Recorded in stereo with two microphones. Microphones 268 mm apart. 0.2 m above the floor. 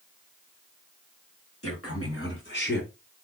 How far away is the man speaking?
About 2.5 m.